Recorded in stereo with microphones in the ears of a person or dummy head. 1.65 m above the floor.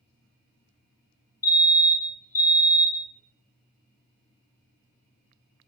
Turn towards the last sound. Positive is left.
turn(degrees=15)  # may be behind; listen again after turning